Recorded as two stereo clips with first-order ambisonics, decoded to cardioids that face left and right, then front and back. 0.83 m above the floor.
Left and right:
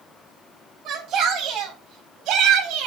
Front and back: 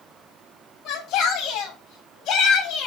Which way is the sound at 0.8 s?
35° right.